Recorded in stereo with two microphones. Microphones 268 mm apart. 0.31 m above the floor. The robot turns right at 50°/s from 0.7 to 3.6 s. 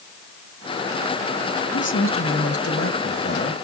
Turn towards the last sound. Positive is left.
turn(degrees=145)